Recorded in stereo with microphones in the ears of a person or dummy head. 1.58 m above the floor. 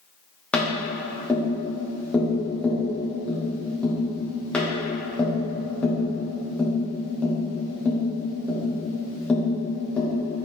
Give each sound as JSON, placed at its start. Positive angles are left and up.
{"t": 0.5, "sound": "tapping", "side_deg": 10, "distance_m": 1.2}